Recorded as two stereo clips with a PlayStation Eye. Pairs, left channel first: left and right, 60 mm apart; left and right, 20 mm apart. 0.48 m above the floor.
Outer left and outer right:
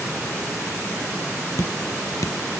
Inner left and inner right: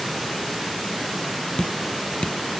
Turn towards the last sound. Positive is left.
turn(degrees=70)  # may be behind; listen again after turning